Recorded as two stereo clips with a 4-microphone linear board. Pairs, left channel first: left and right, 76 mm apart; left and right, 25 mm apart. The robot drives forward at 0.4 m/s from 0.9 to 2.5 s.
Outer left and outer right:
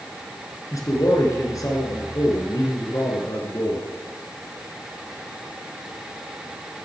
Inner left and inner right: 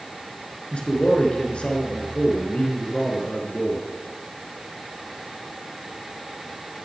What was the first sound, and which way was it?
A man speaking, 45° left (ahead or behind).